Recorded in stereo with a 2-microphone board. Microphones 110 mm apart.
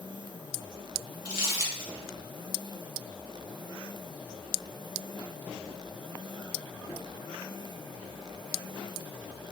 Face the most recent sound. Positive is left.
turn(degrees=-35)  # may be behind; listen again after turning